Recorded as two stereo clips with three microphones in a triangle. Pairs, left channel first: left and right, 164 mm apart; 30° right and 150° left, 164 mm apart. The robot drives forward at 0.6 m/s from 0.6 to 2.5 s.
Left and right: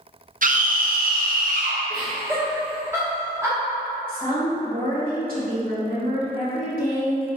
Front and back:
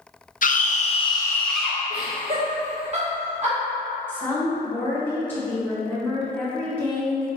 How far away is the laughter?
About 0.8 m.